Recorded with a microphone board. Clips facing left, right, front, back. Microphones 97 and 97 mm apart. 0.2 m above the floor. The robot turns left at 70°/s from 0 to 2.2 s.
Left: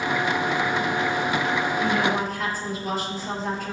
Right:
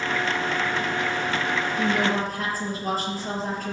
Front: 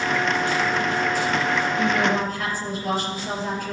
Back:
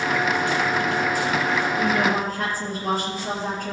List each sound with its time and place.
1.8 s a woman speaking: 110° right, 4.5 m; by 3.7 s 140° right, 4.5 m